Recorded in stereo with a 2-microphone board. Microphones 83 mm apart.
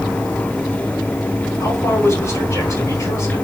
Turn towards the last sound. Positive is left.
turn(degrees=40)  # may be behind; listen again after turning